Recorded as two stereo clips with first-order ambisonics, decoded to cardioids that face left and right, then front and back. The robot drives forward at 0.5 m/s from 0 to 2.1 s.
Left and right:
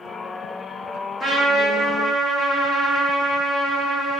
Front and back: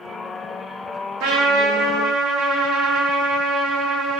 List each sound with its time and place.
1.2 s a trumpet: 165° left, 1.5 m; by 4.2 s 170° left, 1.9 m